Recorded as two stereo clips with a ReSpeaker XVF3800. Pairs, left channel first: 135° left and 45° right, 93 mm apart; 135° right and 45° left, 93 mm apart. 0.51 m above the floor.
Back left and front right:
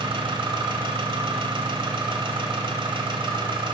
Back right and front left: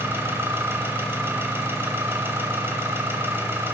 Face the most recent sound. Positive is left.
turn(degrees=-20)